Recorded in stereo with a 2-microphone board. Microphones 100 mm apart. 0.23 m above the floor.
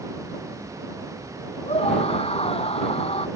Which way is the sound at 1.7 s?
80° left.